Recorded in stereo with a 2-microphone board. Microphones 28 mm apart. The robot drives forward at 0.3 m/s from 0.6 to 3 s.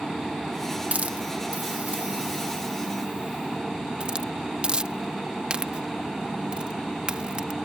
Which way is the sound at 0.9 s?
55° right (ahead or behind).